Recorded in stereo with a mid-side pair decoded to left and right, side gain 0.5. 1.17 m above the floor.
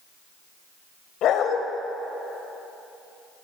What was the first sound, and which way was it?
A dog barking, 70° left.